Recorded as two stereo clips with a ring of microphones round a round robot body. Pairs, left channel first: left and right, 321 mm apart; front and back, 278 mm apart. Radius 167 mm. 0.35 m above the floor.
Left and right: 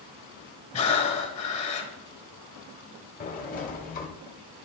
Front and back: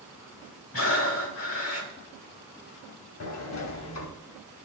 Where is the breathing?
25° left, 1.6 m.